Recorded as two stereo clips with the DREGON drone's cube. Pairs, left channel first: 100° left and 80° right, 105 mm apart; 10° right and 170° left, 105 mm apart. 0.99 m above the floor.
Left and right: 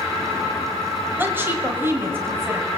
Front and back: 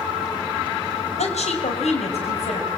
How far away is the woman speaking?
About 4 m.